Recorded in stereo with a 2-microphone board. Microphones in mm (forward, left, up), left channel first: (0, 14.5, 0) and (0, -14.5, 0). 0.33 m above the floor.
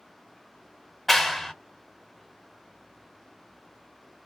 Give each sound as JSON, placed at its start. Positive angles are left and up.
{"t": 1.1, "sound": "a clap", "side_deg": 10, "distance_m": 0.6}